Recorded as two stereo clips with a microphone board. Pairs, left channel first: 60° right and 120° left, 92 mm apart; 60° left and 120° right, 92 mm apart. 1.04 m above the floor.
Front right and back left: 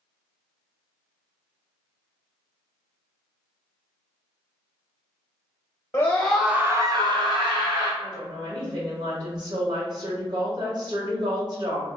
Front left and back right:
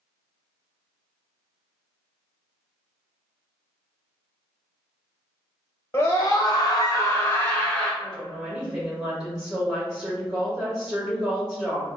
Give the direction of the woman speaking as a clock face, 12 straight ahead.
7 o'clock.